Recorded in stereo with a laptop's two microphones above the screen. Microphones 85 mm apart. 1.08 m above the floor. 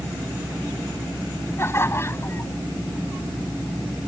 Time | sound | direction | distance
1.6 | laughter | 30° left (ahead or behind) | ?